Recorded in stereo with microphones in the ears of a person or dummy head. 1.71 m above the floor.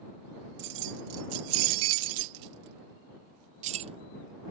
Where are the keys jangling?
60° right (ahead or behind); by 4.5 s 20° right (ahead or behind).